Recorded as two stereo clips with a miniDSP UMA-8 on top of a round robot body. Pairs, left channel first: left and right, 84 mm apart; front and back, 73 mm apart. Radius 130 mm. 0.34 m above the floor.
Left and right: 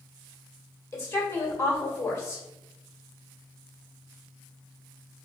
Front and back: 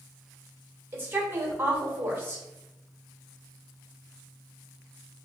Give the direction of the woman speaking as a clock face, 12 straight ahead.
8 o'clock.